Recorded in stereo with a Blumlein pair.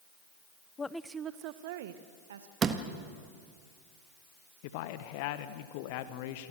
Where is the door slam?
20° right, 1.6 m.